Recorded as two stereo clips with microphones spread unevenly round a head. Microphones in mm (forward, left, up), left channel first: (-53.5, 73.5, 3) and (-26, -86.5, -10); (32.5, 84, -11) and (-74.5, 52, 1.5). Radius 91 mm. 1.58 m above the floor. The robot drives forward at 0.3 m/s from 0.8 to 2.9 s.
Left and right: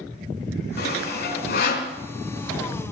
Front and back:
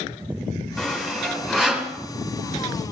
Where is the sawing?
110° left, 3 m; by 1.9 s 115° left, 3 m.